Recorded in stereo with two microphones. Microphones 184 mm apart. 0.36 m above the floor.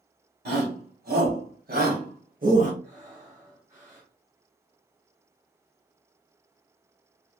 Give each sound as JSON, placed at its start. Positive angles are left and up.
{"t": 0.5, "sound": "a shout", "side_deg": -65, "distance_m": 3.0}
{"t": 2.8, "sound": "breathing", "side_deg": -45, "distance_m": 2.0}